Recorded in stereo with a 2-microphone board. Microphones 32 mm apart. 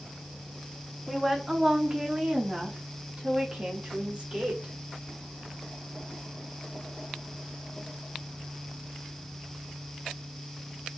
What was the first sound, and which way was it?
A woman speaking, 5° right (ahead or behind).